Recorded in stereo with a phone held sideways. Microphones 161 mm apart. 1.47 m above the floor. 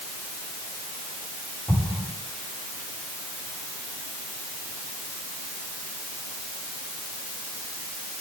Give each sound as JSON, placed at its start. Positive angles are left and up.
{"t": 1.7, "sound": "an explosion", "side_deg": 15, "distance_m": 6.0}